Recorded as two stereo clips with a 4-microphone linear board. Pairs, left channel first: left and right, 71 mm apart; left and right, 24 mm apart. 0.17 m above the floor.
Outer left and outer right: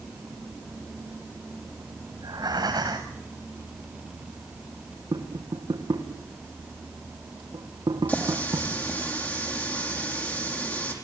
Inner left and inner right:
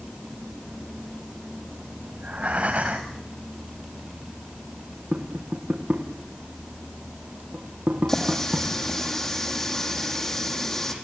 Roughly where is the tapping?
Right.